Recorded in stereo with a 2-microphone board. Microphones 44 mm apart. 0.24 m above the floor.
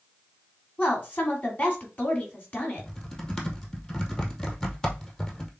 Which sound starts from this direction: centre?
Typing on a keyboard, at 2.8 s.